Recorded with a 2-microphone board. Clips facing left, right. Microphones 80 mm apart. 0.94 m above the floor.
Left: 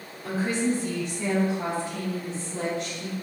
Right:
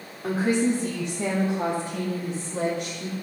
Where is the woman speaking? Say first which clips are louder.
Right 3 dB; 75° right (ahead or behind), 2 m; by 3.1 s 10° right (ahead or behind), 2 m.